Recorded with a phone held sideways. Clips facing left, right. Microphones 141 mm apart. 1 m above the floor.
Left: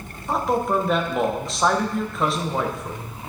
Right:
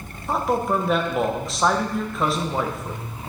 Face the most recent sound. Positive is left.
turn(degrees=0)  # may be behind; listen again after turning